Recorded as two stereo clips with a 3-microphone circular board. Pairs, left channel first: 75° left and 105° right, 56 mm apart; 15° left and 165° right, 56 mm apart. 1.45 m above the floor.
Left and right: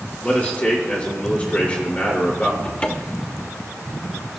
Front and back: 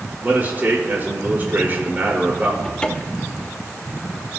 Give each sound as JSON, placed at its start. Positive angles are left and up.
{"t": 0.2, "sound": "a man speaking", "azimuth_deg": 145, "distance_m": 5.0}
{"t": 2.6, "sound": "a cupboard door", "azimuth_deg": 60, "distance_m": 0.9}